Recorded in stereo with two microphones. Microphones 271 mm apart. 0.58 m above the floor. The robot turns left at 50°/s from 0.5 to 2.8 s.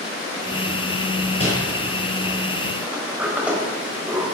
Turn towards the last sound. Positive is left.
turn(degrees=-5)  # may be behind; listen again after turning